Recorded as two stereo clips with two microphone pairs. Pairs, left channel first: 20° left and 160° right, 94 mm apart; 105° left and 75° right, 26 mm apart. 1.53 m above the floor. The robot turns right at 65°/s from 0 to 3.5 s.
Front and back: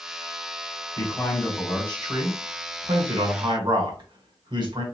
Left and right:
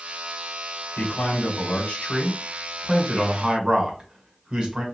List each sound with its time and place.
1.0 s a man speaking: 75° left, 1.4 m; by 4.8 s 120° right, 1.4 m